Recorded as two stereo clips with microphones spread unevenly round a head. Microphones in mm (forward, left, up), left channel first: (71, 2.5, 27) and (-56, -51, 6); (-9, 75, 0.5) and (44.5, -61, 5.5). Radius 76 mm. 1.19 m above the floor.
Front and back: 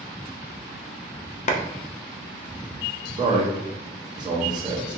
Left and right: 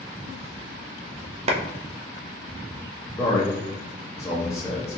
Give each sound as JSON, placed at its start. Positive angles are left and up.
{"t": 1.5, "sound": "a clap", "azimuth_deg": -20, "distance_m": 0.6}
{"t": 3.2, "sound": "a man speaking", "azimuth_deg": 175, "distance_m": 0.7}